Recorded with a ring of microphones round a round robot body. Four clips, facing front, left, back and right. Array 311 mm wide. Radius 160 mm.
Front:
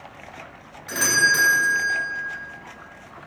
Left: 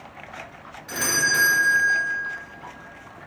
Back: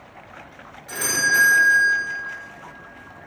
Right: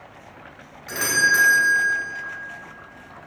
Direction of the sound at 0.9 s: 50° right.